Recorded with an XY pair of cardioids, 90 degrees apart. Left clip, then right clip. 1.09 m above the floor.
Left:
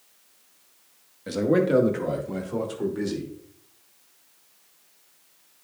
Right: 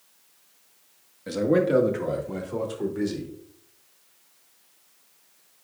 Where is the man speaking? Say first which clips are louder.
Even; 5° left, 1.6 m.